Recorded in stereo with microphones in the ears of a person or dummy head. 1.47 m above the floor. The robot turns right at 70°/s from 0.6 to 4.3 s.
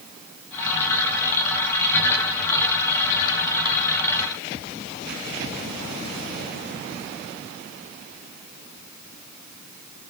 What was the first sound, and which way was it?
Only background noise.